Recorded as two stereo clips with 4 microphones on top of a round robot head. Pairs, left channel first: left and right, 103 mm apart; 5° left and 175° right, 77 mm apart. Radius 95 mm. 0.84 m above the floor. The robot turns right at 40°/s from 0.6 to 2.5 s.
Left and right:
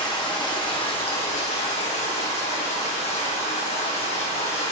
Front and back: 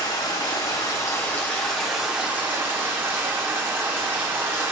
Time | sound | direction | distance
0.0 | running water | 45° left | 0.9 m